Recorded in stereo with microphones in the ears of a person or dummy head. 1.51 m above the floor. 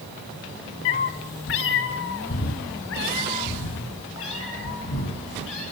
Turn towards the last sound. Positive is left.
turn(degrees=70)  # may be behind; listen again after turning